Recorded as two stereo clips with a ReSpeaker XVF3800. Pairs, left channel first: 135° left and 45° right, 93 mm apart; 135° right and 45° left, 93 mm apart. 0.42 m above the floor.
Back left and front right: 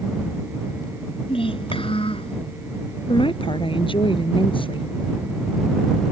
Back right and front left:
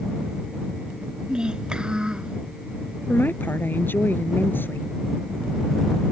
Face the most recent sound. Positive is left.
turn(degrees=155)